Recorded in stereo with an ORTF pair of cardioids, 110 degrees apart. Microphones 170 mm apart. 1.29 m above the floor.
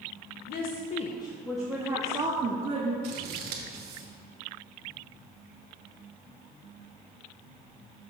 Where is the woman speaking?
70° left, 1.0 m; by 2.9 s 40° right, 1.9 m.